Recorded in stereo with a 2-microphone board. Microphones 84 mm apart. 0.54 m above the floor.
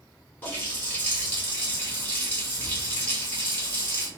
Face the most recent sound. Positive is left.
turn(degrees=20)  # may be behind; listen again after turning